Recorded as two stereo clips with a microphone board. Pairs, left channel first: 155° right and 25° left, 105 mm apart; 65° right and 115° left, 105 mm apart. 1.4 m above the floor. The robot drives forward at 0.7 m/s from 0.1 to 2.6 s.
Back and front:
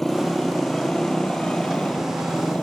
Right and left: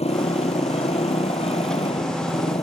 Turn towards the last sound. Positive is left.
turn(degrees=-80)